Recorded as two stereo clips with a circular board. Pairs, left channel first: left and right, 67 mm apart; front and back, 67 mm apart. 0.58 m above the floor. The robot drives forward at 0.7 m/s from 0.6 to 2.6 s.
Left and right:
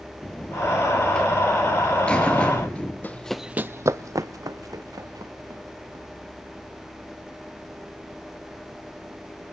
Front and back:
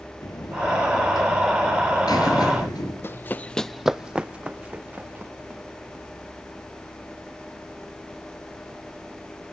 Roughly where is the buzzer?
Ahead.